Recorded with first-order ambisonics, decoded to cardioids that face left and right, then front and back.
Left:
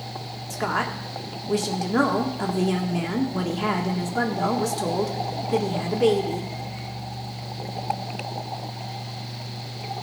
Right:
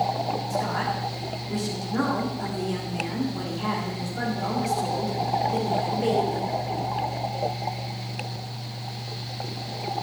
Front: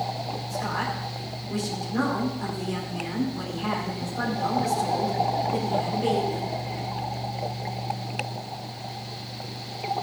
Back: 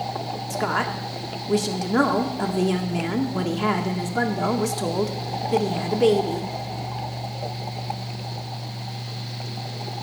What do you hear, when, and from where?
0.5 s a woman speaking: 145° left, 1.9 m